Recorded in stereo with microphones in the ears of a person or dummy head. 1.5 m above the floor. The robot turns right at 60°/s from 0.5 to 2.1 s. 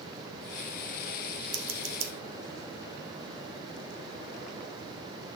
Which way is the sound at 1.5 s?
45° right (ahead or behind).